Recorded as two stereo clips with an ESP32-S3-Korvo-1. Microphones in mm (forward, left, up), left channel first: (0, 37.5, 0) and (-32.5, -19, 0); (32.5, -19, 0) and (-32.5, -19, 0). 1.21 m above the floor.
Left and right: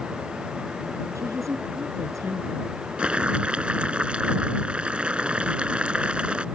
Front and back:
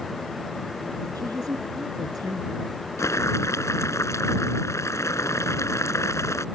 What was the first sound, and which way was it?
A woman speaking, 160° right.